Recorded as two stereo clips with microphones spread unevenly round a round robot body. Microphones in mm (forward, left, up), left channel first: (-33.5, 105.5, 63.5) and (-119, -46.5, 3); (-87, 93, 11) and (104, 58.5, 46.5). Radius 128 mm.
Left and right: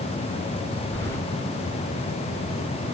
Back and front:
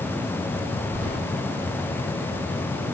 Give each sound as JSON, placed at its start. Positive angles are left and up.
{"t": 0.9, "sound": "keys jangling", "azimuth_deg": 145, "distance_m": 1.4}